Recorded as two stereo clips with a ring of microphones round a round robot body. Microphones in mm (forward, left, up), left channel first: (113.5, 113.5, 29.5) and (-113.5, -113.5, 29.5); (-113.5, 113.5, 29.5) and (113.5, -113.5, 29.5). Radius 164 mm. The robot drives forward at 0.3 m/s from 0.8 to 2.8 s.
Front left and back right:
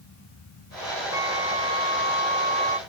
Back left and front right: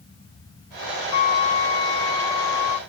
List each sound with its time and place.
1.1 s a flute: 145° left; by 2.8 s 155° left